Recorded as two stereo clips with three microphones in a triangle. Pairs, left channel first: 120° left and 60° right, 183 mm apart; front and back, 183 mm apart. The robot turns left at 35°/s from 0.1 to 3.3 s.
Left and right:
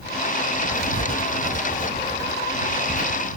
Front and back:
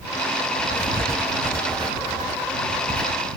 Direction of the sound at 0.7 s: 75° right.